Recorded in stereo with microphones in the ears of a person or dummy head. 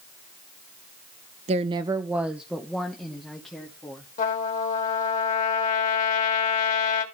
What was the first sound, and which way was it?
A woman speaking, 30° right (ahead or behind).